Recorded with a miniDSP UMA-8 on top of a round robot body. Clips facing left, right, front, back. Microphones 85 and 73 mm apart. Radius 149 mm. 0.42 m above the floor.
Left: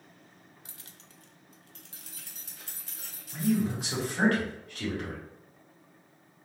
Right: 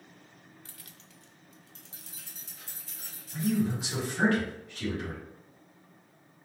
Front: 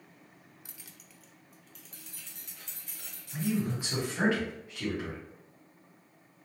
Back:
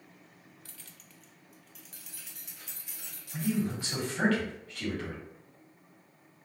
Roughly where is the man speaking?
Left.